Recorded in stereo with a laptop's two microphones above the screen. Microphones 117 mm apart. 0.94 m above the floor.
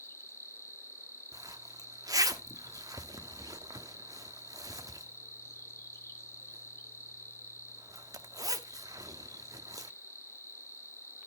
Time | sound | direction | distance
0.0 | an insect | 25° left (ahead or behind) | 0.7 m
1.3 | a zipper | 30° right (ahead or behind) | 0.8 m